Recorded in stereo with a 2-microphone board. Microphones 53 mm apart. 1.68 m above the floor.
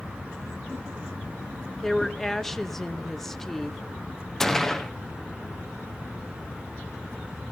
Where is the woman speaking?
10° left (ahead or behind), 0.8 m.